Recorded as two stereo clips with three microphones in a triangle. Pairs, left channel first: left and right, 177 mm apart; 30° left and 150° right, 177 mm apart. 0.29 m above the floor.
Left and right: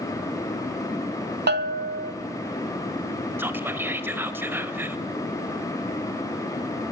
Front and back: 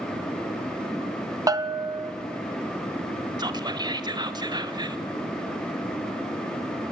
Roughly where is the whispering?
Behind right.